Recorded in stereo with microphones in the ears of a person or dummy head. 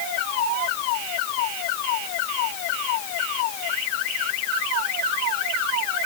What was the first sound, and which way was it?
Only background noise.